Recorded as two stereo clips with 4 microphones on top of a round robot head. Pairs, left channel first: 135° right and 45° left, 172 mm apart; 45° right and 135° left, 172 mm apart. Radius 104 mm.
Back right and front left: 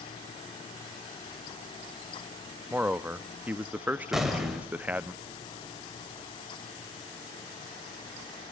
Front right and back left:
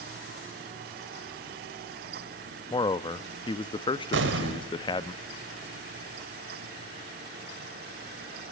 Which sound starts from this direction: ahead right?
A man speaking, at 2.7 s.